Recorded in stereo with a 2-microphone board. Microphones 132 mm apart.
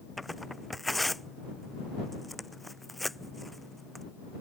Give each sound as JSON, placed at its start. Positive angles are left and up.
{"t": 0.2, "sound": "tearing paper", "side_deg": 0}